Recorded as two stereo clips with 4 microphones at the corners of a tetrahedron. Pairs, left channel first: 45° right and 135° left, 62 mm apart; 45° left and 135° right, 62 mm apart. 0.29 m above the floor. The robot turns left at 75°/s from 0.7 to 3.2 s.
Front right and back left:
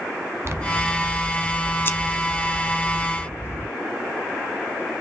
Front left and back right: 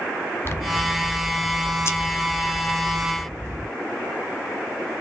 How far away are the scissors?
About 0.9 m.